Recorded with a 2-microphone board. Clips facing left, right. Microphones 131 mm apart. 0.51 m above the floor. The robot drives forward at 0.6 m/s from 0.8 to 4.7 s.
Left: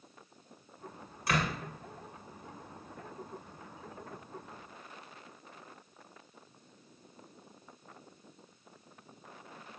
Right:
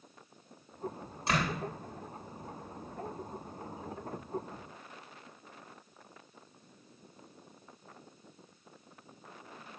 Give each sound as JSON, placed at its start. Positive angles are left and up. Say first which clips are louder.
{"t": 1.3, "sound": "a door slam", "louder": "even", "side_deg": -25, "distance_m": 3.5}